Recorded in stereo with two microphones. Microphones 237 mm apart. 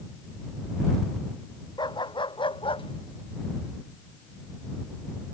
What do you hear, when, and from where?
1.8 s a dog barking: 20° left (ahead or behind); by 5.3 s 30° left (ahead or behind)